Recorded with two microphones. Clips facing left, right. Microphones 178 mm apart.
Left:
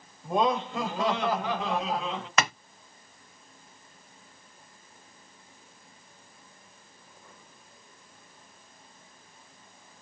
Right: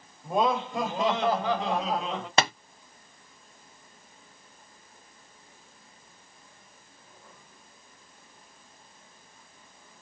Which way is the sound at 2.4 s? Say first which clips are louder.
Right 3 dB; 30° right (ahead or behind).